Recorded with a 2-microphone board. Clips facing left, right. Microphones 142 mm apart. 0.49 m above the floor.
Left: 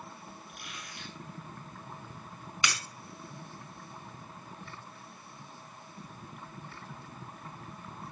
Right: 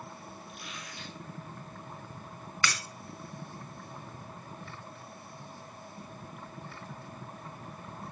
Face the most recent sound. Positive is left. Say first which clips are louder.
# right 1 dB
turn(degrees=20)  # may be behind; listen again after turning